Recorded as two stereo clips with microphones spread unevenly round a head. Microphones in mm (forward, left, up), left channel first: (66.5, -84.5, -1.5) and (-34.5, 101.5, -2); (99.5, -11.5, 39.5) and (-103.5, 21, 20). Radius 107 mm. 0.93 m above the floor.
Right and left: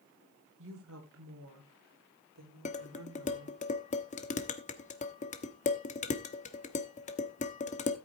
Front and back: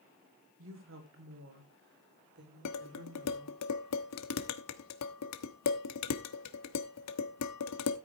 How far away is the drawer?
I don't hear a drawer.